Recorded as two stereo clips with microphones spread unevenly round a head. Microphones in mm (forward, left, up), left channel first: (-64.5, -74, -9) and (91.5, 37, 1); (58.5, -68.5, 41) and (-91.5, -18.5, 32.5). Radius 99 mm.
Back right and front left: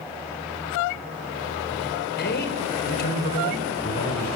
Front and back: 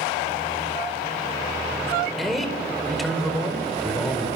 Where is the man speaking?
110° right, 4.5 m.